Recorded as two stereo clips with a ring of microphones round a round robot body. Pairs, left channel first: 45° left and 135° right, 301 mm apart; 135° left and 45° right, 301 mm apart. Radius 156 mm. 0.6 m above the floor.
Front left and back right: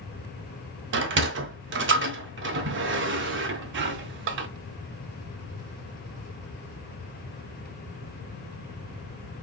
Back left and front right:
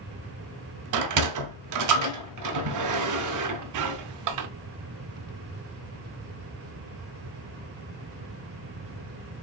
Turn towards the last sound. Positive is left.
turn(degrees=-80)